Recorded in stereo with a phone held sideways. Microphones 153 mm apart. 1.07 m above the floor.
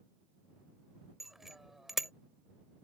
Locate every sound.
1.2 s a bicycle bell: centre (ahead or behind)